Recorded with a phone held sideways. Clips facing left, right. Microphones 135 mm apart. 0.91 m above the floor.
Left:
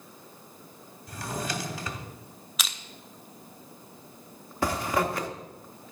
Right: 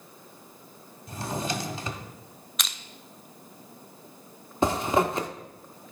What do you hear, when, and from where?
1.1 s a drawer: 25° right (ahead or behind), 1.0 m
2.6 s crushing: 5° left (ahead or behind), 0.5 m
4.6 s a zipper: 20° right (ahead or behind), 0.7 m